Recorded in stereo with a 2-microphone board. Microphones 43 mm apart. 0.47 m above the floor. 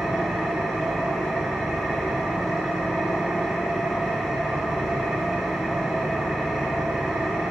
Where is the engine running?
10° right (ahead or behind), 2.5 m.